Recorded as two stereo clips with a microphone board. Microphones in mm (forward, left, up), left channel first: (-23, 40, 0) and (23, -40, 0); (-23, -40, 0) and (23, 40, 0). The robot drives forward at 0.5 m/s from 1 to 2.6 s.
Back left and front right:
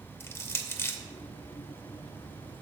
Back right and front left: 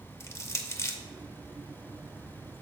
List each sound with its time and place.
0.2 s crushing: straight behind, 0.6 m